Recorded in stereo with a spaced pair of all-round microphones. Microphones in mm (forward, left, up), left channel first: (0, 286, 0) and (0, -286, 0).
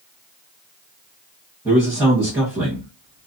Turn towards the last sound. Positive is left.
turn(degrees=-5)  # may be behind; listen again after turning